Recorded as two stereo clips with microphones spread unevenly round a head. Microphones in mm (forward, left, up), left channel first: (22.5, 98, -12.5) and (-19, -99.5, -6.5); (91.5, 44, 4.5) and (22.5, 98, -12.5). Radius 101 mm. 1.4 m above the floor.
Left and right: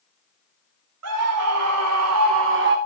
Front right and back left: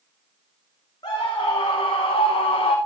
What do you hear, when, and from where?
1.0 s a scream: 105° right, 2.5 m; by 2.8 s 65° right, 1.2 m